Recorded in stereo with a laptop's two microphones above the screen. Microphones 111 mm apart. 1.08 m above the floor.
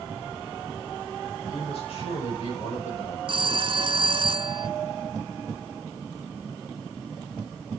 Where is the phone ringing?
50° right (ahead or behind), 0.5 m.